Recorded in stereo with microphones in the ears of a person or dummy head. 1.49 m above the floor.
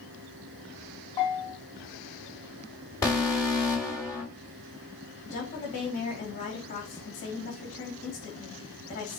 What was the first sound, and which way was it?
A bell, 20° left (ahead or behind).